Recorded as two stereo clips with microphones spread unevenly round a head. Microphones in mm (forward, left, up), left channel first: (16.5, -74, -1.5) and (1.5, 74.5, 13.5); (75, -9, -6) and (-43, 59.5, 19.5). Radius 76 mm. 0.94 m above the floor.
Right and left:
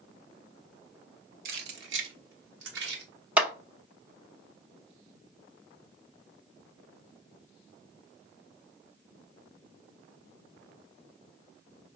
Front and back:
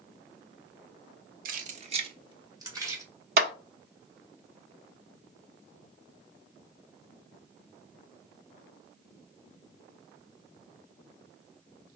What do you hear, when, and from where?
1.4 s keys jangling: 130° left, 1.0 m; by 3.0 s 80° left, 2.5 m
3.4 s a clap: straight behind, 0.8 m